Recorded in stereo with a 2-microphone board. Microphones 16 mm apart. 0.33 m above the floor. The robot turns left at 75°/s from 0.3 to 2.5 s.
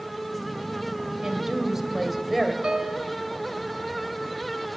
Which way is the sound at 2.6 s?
70° right (ahead or behind).